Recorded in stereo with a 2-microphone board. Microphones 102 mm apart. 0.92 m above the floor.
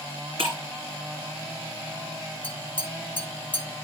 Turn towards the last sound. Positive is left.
turn(degrees=15)  # may be behind; listen again after turning